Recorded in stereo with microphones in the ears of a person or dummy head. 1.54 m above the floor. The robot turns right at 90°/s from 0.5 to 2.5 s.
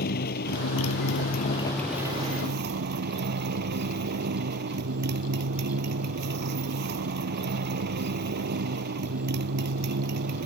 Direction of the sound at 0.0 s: 50° left.